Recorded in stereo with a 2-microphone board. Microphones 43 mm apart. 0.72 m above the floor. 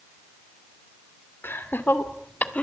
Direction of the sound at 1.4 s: 55° left (ahead or behind).